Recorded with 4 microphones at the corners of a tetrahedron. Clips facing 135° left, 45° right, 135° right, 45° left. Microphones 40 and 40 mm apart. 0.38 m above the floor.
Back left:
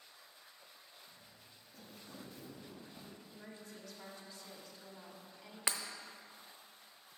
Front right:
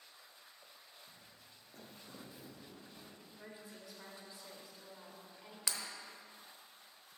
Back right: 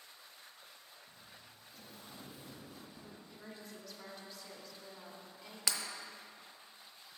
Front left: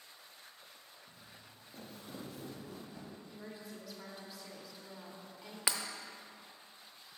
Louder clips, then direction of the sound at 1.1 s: Even, front left 1 dB; 35° right.